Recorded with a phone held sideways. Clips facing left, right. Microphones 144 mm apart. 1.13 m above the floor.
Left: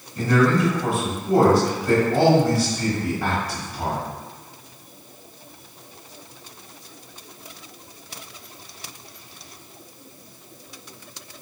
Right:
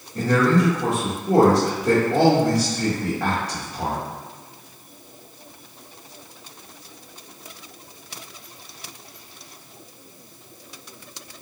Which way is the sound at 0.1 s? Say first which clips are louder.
Even; 75° right (ahead or behind).